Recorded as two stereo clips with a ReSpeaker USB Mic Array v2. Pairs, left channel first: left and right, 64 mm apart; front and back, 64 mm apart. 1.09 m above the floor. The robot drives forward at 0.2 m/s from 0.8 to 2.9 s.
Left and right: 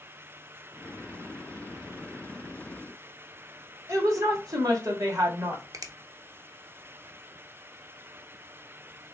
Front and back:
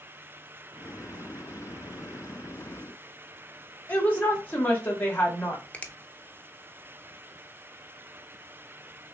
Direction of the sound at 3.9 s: 65° right.